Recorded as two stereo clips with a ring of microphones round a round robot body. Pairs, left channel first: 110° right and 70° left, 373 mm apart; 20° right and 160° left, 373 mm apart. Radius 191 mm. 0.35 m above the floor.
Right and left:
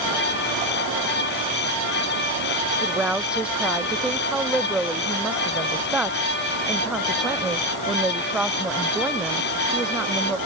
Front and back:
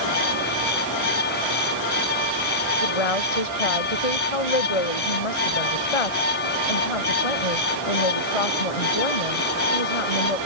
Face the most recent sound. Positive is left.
turn(degrees=-20)